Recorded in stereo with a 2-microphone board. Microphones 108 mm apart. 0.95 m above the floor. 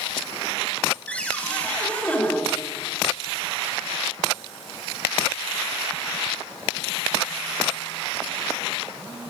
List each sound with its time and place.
1.1 s a cupboard door: 15° left (ahead or behind), 3.5 m